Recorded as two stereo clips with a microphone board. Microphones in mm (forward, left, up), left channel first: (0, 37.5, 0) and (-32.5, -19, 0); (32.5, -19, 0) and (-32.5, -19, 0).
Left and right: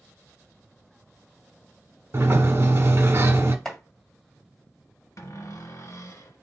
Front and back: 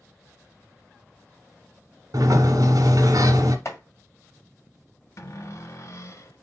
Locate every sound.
2.1 s a sliding door: 170° right, 1.1 m
3.6 s chopping: 20° right, 1.6 m
5.2 s a cupboard door: 35° left, 1.1 m